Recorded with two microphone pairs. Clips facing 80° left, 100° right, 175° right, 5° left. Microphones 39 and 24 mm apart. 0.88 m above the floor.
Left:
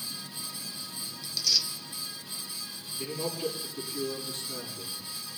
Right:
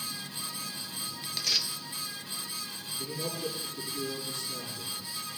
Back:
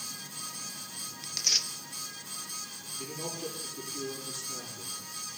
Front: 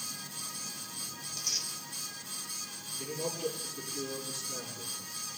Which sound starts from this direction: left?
A man speaking, at 3.0 s.